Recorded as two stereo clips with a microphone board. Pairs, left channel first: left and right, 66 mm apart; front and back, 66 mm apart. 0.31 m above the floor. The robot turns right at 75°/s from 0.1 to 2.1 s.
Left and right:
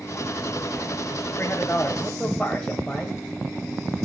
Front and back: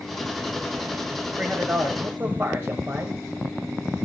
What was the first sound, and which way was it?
A man speaking, 115° left.